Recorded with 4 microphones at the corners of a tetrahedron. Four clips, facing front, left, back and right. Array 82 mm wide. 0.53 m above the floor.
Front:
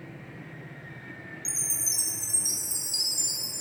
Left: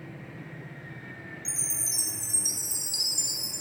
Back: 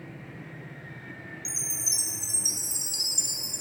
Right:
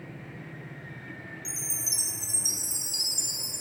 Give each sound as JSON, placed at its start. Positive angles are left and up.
{"t": 1.4, "sound": "a chime", "azimuth_deg": 155, "distance_m": 0.7}